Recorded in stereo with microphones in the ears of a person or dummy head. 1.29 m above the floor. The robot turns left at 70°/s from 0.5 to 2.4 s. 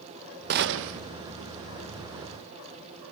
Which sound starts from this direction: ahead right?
A gunshot, at 0.5 s.